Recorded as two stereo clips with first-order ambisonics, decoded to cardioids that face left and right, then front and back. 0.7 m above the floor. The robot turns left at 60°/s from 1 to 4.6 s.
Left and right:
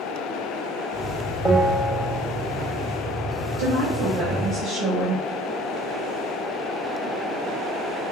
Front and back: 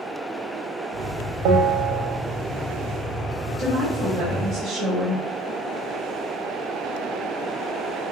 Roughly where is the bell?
Behind.